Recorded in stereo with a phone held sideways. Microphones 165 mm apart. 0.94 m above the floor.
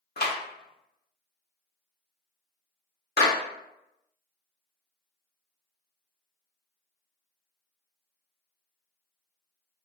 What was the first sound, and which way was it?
A clap, 80° left.